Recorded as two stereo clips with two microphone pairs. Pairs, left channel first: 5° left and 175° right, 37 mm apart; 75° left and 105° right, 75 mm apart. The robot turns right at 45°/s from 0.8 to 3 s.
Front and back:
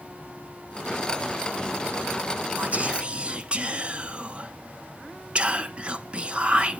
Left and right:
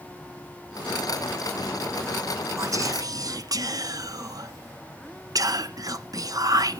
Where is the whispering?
140° right, 0.8 m; by 6.8 s 120° right, 0.8 m.